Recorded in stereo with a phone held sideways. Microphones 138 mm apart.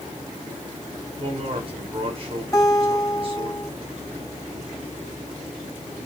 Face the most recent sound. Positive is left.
turn(degrees=20)  # may be behind; listen again after turning